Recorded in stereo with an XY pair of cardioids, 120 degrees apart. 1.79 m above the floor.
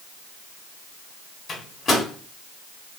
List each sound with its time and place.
1.5 s a microwave: 35° left, 1.3 m